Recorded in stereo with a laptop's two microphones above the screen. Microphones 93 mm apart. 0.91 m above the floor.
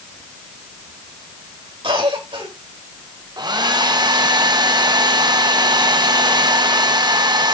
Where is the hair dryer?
50° right (ahead or behind), 0.9 m.